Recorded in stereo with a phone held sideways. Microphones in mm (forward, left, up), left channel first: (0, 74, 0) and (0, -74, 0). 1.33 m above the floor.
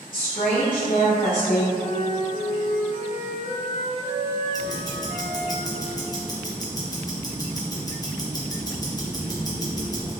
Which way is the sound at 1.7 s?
50° left (ahead or behind).